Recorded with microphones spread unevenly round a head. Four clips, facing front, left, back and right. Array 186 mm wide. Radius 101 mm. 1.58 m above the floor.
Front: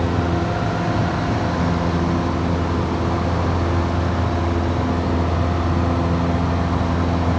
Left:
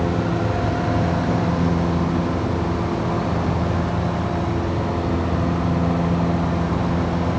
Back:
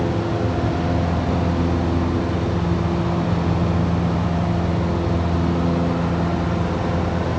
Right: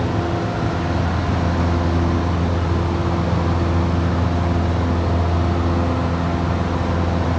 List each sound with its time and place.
Only background noise.